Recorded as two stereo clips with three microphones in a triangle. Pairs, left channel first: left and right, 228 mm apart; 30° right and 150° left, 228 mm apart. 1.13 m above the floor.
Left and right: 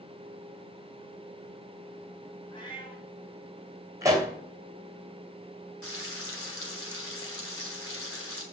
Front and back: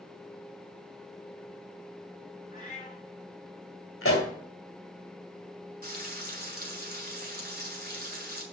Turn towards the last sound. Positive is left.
turn(degrees=105)